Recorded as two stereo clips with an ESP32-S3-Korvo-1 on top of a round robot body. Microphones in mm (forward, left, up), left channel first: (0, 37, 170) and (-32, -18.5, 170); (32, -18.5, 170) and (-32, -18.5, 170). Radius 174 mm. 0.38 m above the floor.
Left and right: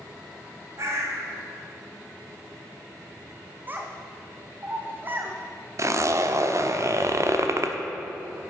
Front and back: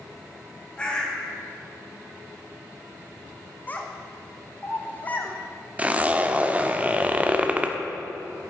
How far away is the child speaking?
About 1.1 m.